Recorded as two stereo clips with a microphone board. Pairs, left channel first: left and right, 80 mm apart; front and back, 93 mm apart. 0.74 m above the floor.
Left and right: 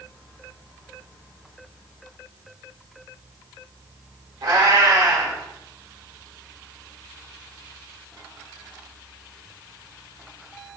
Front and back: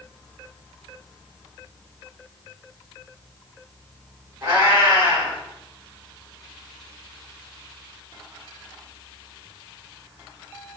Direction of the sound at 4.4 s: 120° right.